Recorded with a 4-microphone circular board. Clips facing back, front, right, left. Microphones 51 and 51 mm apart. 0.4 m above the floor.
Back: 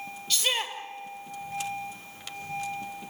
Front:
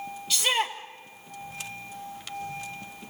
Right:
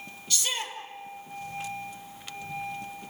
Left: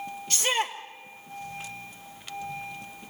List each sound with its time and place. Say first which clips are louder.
0.3 s a shout: front 3 dB, left 5 dB; 80° left, 1.6 m